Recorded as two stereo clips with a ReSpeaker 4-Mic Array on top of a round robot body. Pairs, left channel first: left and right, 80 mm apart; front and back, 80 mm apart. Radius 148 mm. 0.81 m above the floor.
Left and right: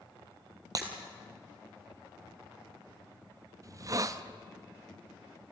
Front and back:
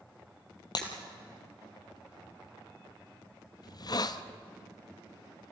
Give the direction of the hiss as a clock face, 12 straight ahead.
1 o'clock.